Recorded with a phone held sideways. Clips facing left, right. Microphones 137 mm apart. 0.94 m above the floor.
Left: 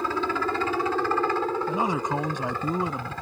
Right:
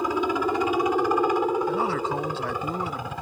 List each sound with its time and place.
0.0 s a helicopter: 15° right (ahead or behind)
1.7 s a man speaking: 15° left (ahead or behind)